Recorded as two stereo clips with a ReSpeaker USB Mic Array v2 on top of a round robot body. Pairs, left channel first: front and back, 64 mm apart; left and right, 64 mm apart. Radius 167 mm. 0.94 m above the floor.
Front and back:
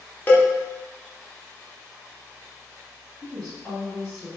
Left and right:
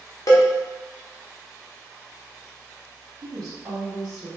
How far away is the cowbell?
About 1.0 m.